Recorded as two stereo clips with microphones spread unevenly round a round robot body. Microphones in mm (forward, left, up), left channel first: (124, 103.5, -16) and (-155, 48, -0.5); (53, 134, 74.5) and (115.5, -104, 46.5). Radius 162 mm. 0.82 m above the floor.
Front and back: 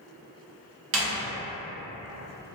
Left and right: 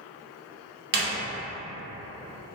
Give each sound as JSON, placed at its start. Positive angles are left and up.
{"t": 0.9, "sound": "a door slam", "azimuth_deg": -115, "distance_m": 0.6}